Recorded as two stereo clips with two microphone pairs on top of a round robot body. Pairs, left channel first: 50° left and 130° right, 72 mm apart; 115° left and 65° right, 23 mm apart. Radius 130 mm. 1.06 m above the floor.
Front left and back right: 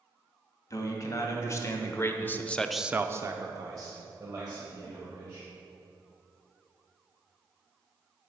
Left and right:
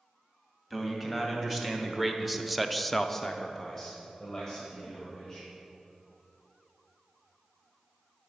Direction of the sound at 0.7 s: 15° left.